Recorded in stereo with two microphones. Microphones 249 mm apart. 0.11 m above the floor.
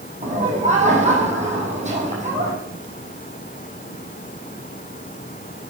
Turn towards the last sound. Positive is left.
turn(degrees=-30)  # may be behind; listen again after turning